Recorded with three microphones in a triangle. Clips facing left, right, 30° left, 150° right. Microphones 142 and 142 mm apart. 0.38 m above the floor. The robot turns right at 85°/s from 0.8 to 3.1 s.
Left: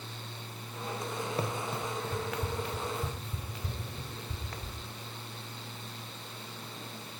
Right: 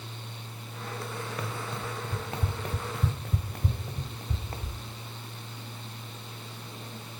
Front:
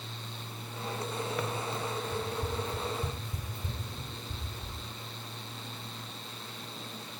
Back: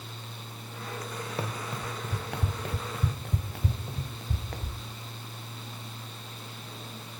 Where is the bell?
I don't hear a bell.